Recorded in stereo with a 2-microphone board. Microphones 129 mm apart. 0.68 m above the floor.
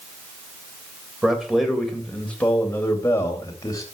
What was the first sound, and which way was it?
A man speaking, 5° right (ahead or behind).